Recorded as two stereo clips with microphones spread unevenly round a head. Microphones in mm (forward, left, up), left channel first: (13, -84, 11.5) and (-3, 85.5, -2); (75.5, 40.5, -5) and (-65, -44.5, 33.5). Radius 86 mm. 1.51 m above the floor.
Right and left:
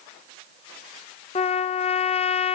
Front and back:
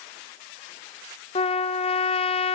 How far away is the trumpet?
About 1.2 m.